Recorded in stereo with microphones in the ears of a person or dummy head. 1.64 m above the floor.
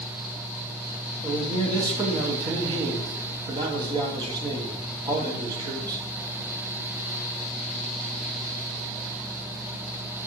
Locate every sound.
1.2 s a man speaking: 20° right (ahead or behind), 0.6 m